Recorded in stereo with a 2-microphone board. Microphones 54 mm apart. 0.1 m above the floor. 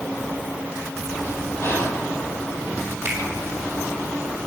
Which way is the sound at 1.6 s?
45° left (ahead or behind).